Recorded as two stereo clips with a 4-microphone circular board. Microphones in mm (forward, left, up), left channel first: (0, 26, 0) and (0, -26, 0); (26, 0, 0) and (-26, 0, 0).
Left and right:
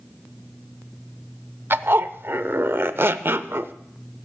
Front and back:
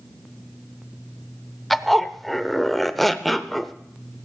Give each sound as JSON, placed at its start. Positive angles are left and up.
{"t": 1.7, "sound": "a zipper", "azimuth_deg": -90, "distance_m": 0.5}